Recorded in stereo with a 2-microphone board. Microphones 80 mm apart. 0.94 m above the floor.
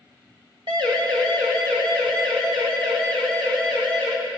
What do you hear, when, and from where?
0.7 s a siren: 80° right, 7 m